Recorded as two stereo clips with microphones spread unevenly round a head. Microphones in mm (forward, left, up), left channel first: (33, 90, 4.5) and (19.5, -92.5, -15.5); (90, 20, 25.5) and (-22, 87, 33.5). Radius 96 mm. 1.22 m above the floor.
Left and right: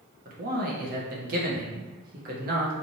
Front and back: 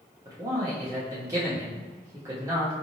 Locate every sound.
0.2 s a man speaking: 140° right, 0.9 m